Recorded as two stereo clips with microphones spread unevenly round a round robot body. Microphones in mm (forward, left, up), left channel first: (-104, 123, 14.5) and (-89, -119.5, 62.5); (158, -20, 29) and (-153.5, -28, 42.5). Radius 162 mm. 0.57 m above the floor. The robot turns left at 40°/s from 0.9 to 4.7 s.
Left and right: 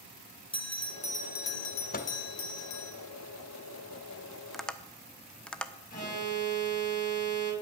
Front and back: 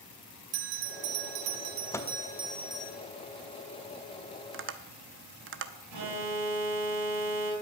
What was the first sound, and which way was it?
A bell, 165° left.